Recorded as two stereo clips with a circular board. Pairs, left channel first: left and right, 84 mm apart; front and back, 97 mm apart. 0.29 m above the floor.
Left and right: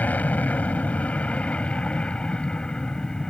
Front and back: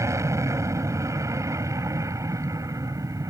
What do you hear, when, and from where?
0.0 s an aircraft: 150° left; by 3.3 s 165° left